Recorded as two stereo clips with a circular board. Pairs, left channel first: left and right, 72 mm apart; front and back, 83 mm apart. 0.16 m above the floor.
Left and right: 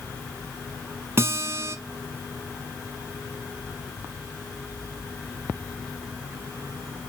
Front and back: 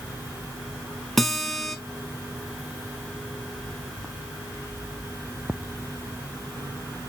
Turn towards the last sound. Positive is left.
turn(degrees=-85)